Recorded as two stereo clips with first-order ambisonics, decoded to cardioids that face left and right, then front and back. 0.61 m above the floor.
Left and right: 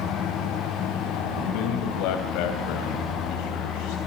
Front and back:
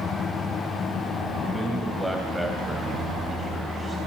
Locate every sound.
1.5 s a man speaking: 95° left, 3 m